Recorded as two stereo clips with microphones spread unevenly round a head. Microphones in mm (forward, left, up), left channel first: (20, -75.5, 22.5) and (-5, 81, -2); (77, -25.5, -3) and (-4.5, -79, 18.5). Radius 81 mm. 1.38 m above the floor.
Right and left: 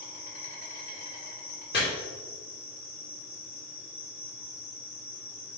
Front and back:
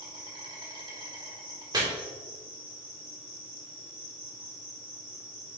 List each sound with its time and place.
0.0 s an insect: 115° right, 2.5 m
1.7 s chopping: 110° right, 2.5 m